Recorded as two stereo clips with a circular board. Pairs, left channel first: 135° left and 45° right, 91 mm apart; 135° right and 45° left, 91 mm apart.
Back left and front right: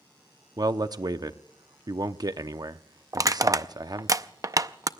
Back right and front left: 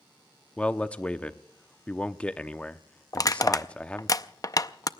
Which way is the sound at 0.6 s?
60° right.